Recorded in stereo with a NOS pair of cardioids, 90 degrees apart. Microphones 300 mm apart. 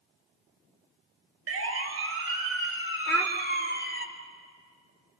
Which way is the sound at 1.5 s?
55° right.